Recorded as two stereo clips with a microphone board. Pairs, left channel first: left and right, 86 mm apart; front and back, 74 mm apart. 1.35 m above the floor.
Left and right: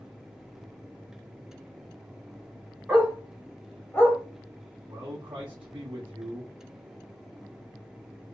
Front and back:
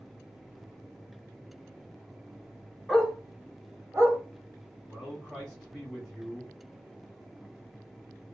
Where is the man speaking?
90° right, 1.4 m.